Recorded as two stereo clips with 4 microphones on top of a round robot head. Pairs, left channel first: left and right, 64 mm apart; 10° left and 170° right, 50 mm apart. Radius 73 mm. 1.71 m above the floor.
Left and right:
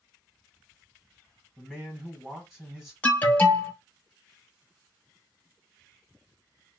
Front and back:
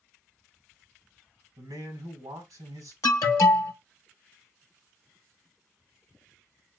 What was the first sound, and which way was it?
A man speaking, 170° right.